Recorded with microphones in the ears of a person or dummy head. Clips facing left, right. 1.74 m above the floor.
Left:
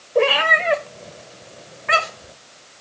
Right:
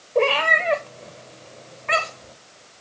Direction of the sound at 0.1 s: 10° left (ahead or behind).